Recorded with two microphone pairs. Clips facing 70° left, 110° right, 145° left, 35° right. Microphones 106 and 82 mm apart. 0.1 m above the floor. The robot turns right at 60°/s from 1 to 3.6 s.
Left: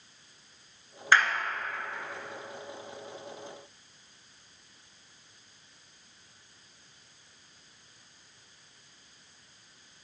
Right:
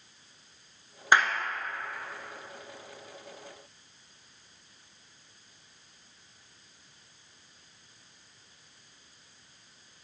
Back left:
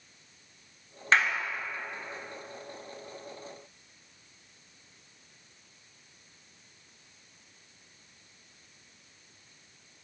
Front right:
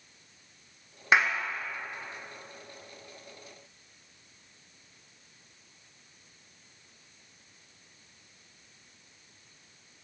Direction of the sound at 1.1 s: 85° right.